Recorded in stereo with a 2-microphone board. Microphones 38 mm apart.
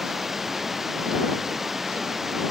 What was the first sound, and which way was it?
Running water, 10° right (ahead or behind).